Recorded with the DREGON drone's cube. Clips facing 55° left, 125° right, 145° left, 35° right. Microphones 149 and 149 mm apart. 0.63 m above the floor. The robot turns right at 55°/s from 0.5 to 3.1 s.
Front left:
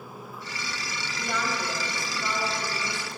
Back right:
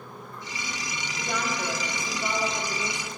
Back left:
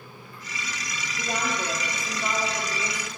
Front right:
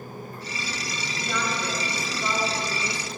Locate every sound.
1.2 s a woman speaking: 130° left, 1.0 m; by 3.1 s 125° right, 1.0 m